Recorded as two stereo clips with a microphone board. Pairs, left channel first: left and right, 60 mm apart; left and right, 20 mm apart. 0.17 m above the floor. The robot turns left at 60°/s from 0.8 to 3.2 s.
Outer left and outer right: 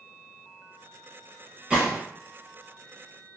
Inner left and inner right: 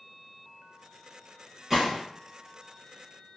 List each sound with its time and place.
1.7 s a gunshot: 15° right (ahead or behind), 1.4 m; by 2.0 s 25° right (ahead or behind), 1.4 m